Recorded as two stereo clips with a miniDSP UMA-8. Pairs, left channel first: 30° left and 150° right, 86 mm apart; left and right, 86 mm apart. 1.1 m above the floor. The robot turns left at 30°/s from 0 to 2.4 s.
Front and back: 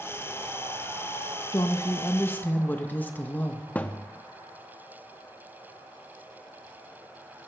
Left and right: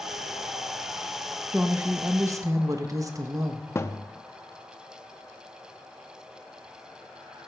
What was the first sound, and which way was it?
A woman speaking, 15° right.